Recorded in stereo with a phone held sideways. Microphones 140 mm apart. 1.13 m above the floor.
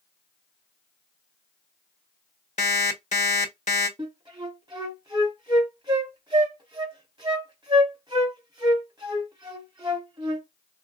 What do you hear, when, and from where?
2.6 s an alarm clock: 55° left (ahead or behind), 1.0 m
4.0 s a flute: 30° right (ahead or behind), 1.7 m